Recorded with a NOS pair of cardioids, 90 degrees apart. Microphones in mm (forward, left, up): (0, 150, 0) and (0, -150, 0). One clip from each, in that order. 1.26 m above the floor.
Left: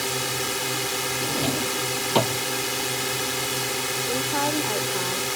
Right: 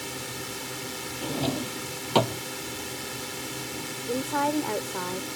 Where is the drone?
60° left.